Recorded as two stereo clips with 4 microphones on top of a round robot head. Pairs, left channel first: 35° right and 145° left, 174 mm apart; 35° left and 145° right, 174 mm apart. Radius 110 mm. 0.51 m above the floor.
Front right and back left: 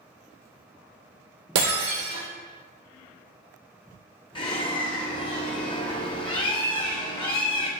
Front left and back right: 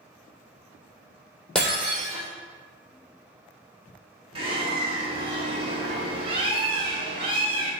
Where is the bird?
95° right, 1.8 m.